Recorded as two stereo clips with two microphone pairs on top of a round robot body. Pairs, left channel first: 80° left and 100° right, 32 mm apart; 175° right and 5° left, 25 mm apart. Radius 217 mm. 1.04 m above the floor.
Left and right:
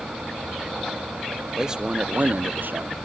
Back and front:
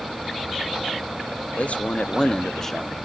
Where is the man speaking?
170° right, 1.0 m; by 3.0 s 90° right, 1.0 m.